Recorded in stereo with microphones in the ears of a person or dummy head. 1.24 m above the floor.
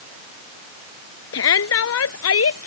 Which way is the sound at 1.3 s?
75° left (ahead or behind).